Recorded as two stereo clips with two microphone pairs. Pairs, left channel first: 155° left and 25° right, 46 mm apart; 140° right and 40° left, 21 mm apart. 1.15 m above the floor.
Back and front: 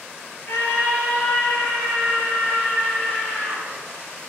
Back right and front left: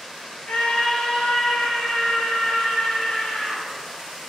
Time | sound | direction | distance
0.5 | a scream | 175° right | 3 m